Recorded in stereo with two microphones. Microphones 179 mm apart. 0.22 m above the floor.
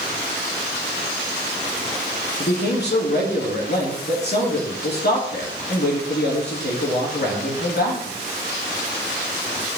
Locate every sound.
2.4 s a man speaking: 65° left (ahead or behind), 3 m